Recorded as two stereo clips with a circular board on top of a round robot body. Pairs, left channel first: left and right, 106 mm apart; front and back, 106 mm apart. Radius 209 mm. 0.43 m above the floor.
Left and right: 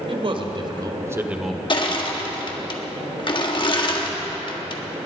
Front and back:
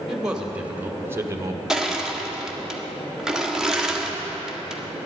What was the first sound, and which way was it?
A man speaking, 95° right.